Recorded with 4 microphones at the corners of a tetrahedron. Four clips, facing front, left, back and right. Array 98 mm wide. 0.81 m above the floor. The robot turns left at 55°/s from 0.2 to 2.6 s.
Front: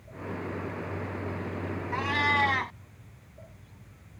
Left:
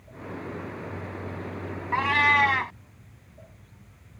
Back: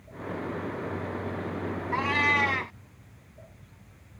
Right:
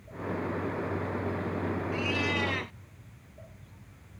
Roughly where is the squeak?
I don't hear a squeak.